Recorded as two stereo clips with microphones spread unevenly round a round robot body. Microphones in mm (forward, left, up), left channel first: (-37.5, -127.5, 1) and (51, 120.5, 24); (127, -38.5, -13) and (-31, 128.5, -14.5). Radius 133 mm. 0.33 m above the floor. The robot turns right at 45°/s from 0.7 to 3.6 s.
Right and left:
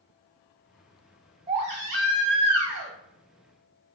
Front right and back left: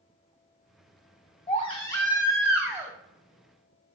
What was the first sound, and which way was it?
A baby crying, straight ahead.